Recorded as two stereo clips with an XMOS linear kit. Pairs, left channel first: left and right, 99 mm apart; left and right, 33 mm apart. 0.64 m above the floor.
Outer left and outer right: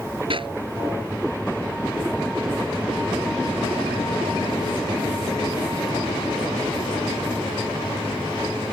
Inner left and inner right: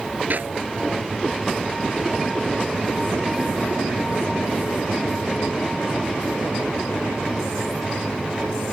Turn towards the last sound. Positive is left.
turn(degrees=-60)  # may be behind; listen again after turning